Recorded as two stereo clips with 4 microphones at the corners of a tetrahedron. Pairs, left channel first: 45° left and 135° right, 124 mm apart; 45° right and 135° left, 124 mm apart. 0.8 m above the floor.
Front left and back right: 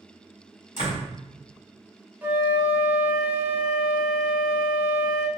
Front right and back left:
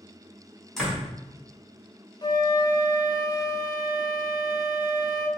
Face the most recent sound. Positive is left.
turn(degrees=-70)